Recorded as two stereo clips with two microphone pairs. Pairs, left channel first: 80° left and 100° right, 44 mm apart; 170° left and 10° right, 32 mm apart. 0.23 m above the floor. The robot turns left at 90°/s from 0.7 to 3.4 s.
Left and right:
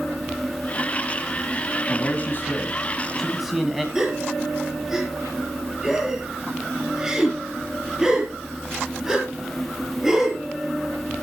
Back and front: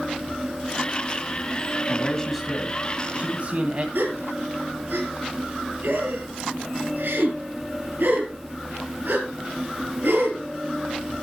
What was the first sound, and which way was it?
A man speaking, 120° left.